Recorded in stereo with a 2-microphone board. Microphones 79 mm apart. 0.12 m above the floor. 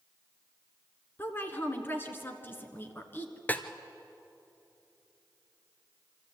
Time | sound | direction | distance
1.2 | a woman speaking | 25° left (ahead or behind) | 1.6 m
3.5 | a snare drum | 20° left (ahead or behind) | 0.8 m